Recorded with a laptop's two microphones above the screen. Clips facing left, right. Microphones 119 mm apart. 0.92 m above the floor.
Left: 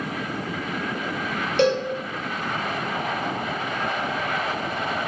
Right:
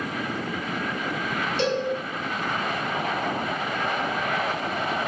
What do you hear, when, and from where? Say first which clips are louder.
1.6 s a cowbell: left 6 dB; 60° left (ahead or behind), 0.8 m